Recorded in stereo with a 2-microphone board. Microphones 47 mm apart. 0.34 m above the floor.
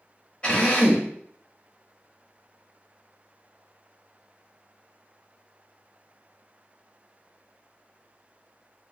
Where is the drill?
25° left (ahead or behind), 1.1 m.